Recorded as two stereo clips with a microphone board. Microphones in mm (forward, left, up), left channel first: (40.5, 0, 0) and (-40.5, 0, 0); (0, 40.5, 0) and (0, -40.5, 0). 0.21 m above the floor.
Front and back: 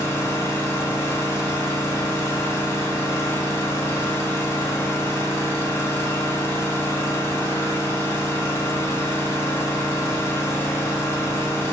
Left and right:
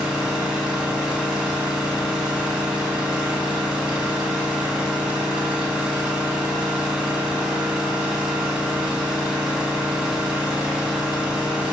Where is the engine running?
20° right, 0.9 m.